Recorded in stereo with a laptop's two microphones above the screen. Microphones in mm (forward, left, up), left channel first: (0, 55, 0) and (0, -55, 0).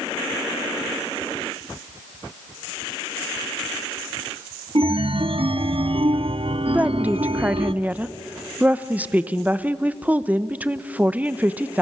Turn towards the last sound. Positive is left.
turn(degrees=-15)  # may be behind; listen again after turning